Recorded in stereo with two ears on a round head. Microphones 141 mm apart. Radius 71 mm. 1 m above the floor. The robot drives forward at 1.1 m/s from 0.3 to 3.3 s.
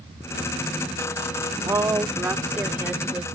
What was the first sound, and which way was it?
A woman speaking, 20° right (ahead or behind).